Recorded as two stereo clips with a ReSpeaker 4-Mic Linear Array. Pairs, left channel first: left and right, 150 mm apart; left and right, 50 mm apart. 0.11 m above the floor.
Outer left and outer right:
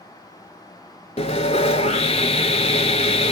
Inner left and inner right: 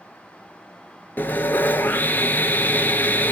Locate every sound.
1.2 s sawing: 45° left (ahead or behind), 0.6 m